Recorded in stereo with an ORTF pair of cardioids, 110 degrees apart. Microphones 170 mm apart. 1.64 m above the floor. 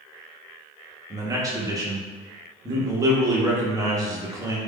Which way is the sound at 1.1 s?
20° right.